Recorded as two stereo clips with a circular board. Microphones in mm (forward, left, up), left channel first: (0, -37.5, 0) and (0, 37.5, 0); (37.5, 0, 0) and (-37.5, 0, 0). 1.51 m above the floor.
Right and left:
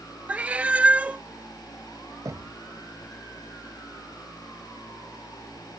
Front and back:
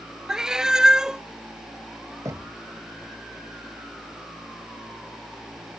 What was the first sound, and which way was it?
A cat meowing, 115° left.